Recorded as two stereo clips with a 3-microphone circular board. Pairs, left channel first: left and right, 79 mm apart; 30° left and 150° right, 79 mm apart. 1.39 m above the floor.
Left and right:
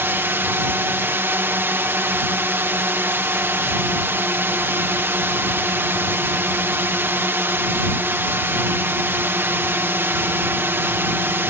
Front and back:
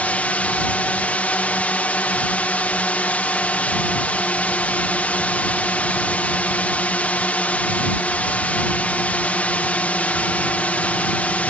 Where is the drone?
35° right.